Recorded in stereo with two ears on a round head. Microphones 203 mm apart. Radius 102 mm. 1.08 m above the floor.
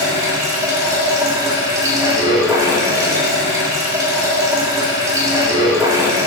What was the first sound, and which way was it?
Running water, 15° right (ahead or behind).